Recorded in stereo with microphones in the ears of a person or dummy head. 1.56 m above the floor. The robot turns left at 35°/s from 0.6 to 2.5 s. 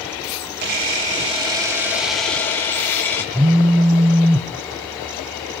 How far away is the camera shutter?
About 2.5 m.